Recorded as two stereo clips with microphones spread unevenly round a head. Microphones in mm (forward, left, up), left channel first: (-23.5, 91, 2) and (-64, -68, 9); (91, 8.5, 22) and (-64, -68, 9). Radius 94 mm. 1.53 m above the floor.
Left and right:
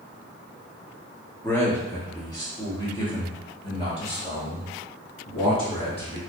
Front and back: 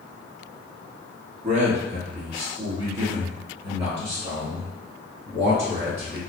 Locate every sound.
1.4 s a man speaking: 155° left, 0.9 m; by 6.2 s 130° left, 3 m